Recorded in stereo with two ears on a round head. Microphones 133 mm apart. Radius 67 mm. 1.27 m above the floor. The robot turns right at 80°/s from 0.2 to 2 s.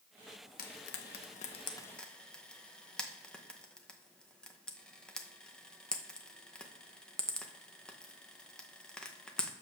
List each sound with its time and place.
0.6 s frying: 60° left (ahead or behind), 0.9 m; by 9.5 s 5° left (ahead or behind), 0.9 m